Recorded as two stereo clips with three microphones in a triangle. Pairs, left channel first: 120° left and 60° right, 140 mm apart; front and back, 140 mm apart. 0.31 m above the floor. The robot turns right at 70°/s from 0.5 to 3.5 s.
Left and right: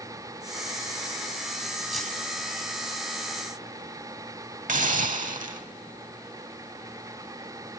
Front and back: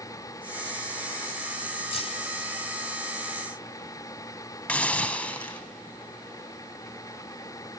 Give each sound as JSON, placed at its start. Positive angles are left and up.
{"t": 1.9, "sound": "keys jangling", "azimuth_deg": 30, "distance_m": 1.9}
{"t": 4.7, "sound": "a hiss", "azimuth_deg": -80, "distance_m": 0.6}